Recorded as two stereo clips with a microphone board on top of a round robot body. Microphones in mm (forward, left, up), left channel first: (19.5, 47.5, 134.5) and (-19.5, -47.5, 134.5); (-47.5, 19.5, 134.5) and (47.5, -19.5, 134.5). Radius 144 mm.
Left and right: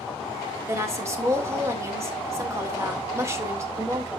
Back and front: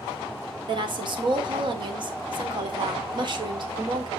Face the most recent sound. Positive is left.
turn(degrees=-55)